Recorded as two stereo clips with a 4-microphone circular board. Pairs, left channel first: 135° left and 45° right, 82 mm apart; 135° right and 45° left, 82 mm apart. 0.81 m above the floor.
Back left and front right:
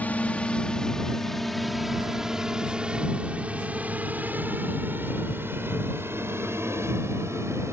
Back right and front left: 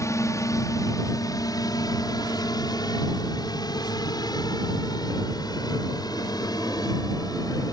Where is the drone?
160° right; by 7.7 s 100° right.